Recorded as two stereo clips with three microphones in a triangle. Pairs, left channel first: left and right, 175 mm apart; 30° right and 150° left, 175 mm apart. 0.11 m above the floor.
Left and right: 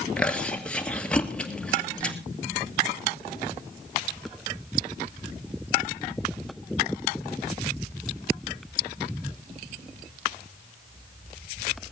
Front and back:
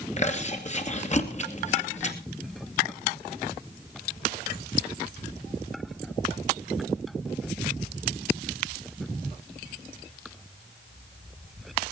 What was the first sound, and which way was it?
Chewing, 5° left.